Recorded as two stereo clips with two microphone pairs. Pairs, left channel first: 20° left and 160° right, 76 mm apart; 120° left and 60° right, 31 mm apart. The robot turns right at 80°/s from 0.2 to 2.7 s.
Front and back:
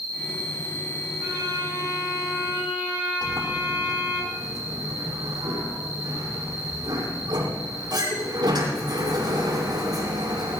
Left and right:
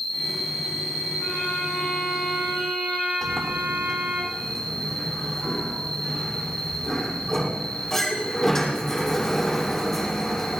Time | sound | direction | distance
0.0 | an insect | 160° right | 8 m
1.2 | a violin | 155° left | 8.5 m
3.2 | a sliding door | 160° right | 7.5 m